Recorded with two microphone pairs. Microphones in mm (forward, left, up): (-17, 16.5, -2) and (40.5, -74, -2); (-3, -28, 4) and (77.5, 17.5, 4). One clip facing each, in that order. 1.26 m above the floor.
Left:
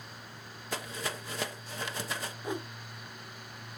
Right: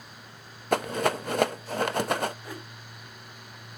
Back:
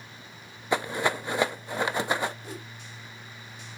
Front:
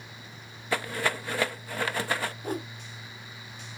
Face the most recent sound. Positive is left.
turn(degrees=50)